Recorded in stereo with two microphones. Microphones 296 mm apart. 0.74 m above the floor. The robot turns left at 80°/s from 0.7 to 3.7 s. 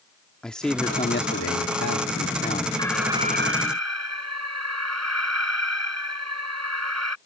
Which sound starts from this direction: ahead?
An alarm, at 2.8 s.